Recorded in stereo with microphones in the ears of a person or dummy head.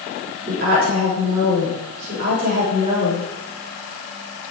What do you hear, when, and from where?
0.5 s a woman speaking: 70° right (ahead or behind), 4.5 m